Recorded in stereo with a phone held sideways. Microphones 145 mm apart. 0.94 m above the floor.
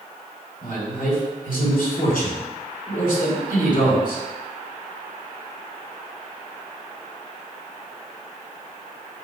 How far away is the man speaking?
About 3 m.